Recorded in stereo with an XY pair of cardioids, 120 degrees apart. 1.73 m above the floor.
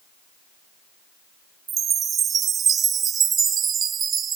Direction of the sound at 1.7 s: 45° right.